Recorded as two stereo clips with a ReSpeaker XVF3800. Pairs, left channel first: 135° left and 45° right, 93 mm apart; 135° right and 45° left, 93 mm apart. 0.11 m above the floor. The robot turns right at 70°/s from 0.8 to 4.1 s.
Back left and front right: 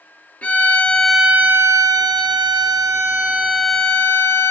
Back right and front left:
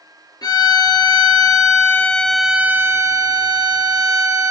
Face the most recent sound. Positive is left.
turn(degrees=75)